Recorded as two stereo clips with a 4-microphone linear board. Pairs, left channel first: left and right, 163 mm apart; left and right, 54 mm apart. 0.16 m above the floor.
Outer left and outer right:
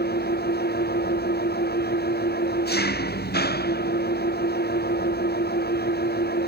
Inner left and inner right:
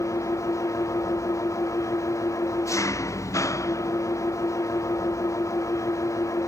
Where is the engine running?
80° left.